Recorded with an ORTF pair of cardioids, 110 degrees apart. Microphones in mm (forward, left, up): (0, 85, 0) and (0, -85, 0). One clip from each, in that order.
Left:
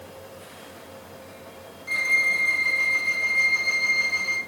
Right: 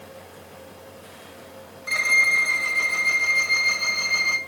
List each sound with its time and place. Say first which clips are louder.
1.9 s a violin: right 3 dB; 35° right, 1.5 m